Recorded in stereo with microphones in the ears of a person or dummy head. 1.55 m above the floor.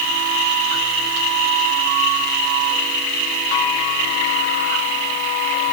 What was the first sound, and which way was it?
Only background noise.